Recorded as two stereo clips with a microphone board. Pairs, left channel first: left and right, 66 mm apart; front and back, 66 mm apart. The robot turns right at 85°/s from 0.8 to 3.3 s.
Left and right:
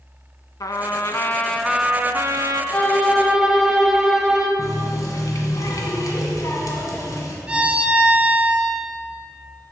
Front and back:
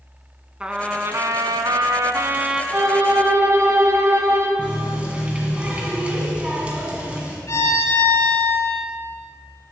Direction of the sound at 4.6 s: 105° left.